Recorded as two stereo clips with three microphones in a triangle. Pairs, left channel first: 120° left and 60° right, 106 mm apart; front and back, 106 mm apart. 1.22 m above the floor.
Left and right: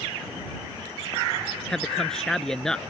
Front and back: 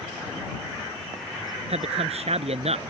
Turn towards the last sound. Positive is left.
turn(degrees=-155)